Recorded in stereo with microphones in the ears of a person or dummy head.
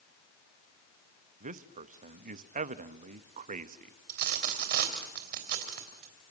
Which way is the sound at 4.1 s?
55° right (ahead or behind).